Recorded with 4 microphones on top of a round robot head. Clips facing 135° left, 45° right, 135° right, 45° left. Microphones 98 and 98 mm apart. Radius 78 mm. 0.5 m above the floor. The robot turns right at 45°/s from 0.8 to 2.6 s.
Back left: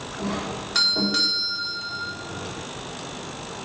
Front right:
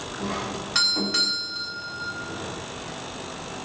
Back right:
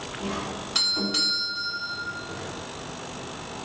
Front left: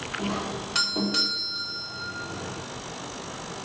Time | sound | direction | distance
0.2 | a doorbell | 50° left | 1.7 m